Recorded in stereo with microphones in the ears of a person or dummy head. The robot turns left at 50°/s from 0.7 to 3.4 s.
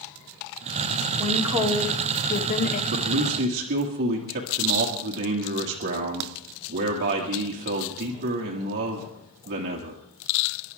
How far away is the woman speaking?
About 2 m.